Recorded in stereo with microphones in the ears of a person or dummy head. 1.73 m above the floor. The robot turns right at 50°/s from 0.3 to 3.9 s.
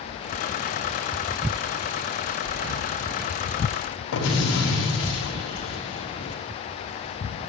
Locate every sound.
2.4 s breathing: 75° right (ahead or behind), 2 m; by 2.9 s 80° right, 2 m
4.1 s an explosion: 65° left (ahead or behind), 5.5 m